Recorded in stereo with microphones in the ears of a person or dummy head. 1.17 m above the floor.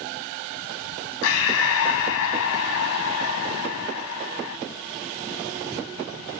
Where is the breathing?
80° left, 4 m.